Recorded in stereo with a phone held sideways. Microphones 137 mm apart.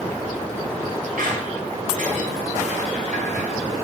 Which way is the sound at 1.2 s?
80° right.